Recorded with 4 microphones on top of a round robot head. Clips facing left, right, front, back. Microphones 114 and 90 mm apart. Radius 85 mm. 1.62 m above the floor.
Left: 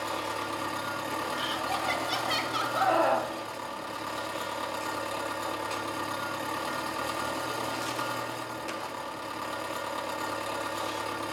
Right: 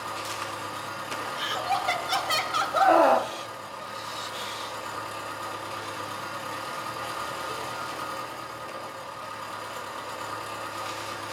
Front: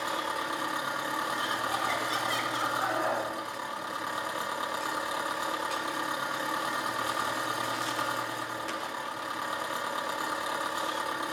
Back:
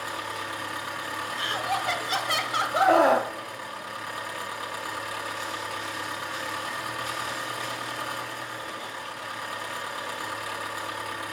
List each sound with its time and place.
0.0 s an engine running: 65° left, 2.5 m
1.4 s laughter: 145° right, 1.5 m
2.7 s a scream: 150° right, 0.6 m